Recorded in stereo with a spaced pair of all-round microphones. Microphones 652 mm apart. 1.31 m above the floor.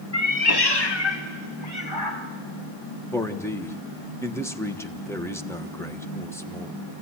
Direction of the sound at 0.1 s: 25° left (ahead or behind).